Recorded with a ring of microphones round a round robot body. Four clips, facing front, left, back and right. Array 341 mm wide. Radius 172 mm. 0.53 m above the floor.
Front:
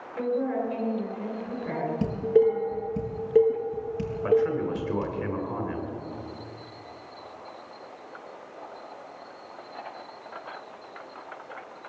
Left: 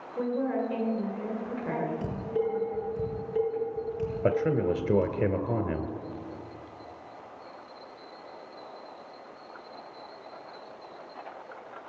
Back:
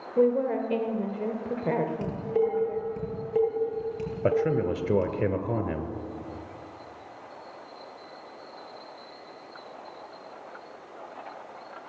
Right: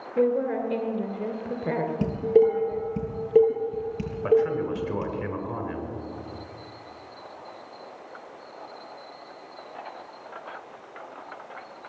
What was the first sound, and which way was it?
A woman speaking, 145° right.